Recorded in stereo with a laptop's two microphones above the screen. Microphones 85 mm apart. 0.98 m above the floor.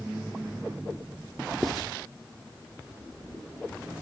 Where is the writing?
Centre (ahead or behind), 0.9 m.